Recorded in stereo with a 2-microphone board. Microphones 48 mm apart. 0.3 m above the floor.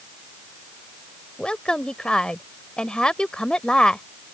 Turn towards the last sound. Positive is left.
turn(degrees=15)  # may be behind; listen again after turning